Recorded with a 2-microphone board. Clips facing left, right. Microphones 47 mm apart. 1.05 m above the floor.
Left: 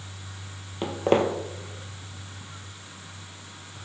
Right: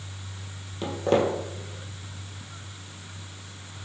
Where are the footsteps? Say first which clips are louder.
Left 1 dB; 35° left (ahead or behind), 1.5 m.